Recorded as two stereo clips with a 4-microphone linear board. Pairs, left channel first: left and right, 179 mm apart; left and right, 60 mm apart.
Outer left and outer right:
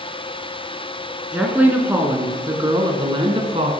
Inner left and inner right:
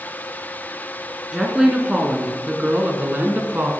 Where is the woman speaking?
5° right (ahead or behind), 3 m; by 3.7 s 35° right (ahead or behind), 2.5 m.